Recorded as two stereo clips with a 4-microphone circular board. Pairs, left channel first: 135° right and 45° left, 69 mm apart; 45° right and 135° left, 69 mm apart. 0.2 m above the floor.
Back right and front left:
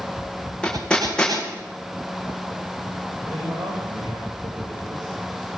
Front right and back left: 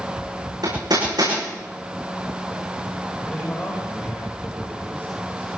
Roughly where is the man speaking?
Ahead.